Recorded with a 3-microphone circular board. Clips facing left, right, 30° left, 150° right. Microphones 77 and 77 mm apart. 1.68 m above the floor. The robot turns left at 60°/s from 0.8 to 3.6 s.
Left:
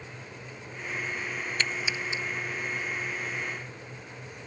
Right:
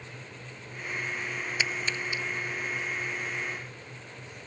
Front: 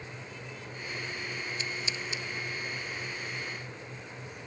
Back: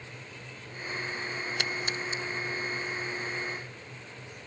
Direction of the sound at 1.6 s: 170° right.